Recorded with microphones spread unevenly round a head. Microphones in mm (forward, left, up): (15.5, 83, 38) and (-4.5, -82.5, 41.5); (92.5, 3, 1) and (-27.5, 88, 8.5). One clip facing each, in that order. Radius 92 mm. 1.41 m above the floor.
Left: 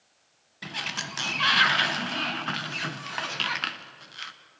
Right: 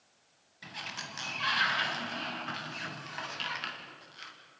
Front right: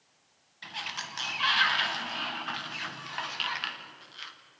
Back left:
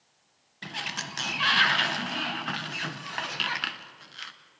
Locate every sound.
0.6 s a sliding door: 110° left, 1.2 m